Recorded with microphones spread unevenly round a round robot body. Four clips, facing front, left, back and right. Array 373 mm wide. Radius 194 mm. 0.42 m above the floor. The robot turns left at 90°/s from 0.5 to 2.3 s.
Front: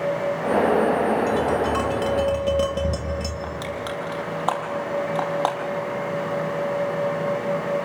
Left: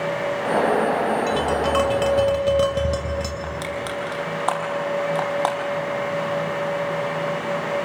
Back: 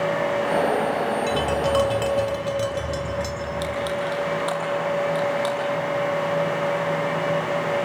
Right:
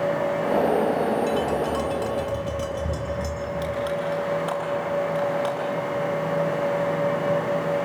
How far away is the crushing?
About 4 m.